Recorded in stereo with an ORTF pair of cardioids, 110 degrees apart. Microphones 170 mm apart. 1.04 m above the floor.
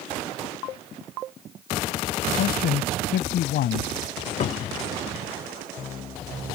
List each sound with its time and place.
2.4 s a man speaking: 65° left
4.4 s a cupboard door: 45° left